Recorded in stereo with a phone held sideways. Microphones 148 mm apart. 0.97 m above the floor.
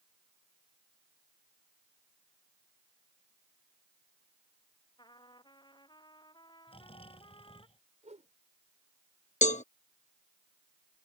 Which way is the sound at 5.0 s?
30° left (ahead or behind).